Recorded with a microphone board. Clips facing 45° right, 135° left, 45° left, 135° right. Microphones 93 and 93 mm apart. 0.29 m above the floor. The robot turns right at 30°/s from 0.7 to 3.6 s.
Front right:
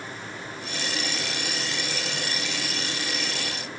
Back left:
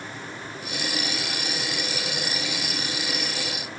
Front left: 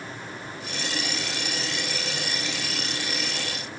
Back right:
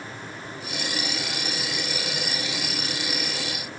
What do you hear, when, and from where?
Only background noise.